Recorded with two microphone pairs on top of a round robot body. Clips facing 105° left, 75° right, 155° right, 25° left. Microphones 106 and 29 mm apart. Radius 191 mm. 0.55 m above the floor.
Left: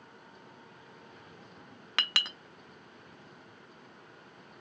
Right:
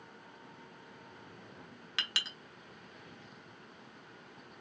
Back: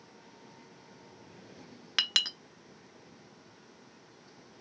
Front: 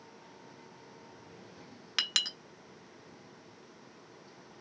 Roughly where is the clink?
Behind left.